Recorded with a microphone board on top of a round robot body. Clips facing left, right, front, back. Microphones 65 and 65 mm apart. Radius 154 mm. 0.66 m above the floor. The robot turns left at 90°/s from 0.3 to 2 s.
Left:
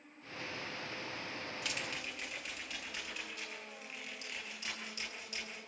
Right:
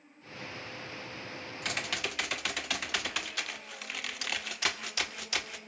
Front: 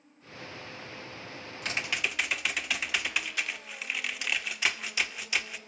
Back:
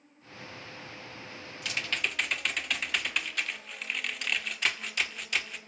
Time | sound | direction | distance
1.6 | typing on a keyboard | 50° right | 1.8 m